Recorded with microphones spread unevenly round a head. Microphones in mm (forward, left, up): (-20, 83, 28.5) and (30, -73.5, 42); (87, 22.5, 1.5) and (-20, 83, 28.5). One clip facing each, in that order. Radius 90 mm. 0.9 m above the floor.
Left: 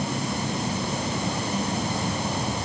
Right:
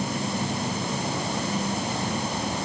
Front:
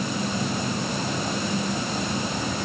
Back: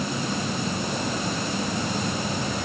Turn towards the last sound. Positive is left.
No sound to turn to.